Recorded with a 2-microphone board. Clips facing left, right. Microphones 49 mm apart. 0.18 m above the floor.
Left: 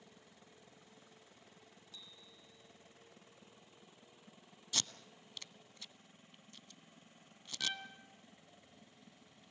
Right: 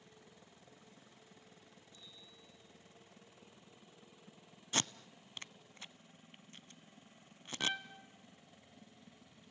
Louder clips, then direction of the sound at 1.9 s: Left 2 dB; 75° left (ahead or behind).